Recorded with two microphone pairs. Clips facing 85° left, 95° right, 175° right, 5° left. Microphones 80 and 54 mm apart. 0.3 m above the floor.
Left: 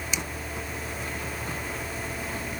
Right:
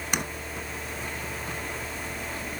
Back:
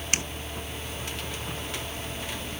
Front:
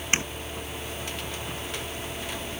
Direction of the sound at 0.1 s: 60° right.